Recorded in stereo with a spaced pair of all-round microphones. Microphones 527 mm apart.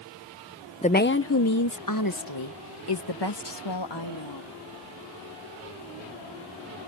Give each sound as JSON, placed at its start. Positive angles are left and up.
{"t": 0.8, "sound": "a woman speaking", "side_deg": 15}